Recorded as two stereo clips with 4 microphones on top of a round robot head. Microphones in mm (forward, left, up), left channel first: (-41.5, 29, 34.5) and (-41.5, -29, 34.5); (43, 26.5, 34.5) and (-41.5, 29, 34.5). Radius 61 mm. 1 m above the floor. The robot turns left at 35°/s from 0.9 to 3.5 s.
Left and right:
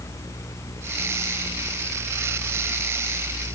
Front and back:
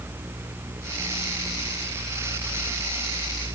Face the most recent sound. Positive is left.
No sound to turn to.